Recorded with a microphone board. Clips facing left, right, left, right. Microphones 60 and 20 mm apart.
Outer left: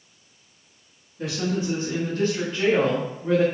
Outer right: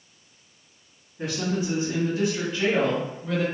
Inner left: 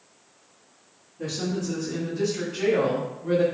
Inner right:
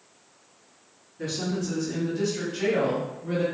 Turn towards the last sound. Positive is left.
turn(degrees=15)  # may be behind; listen again after turning